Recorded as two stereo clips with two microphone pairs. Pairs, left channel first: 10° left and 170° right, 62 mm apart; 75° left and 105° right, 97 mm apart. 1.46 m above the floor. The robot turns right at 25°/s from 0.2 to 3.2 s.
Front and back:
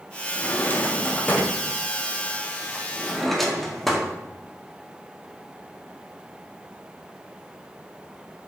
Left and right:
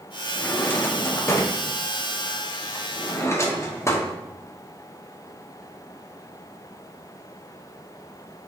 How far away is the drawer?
About 0.6 m.